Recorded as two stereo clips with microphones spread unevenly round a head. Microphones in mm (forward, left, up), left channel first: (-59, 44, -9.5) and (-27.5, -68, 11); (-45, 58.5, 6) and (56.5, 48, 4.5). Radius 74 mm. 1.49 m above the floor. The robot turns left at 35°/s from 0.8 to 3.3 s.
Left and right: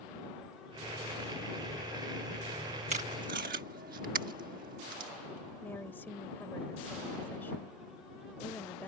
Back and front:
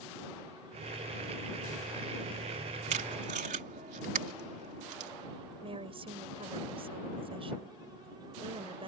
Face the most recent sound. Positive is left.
turn(degrees=25)